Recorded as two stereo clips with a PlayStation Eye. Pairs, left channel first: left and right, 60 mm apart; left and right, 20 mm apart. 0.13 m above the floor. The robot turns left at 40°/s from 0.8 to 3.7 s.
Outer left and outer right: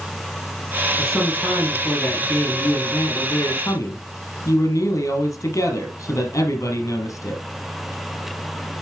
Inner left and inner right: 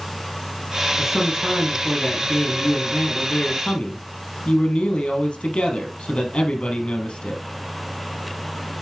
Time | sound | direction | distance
1.0 | a man speaking | straight behind | 4 m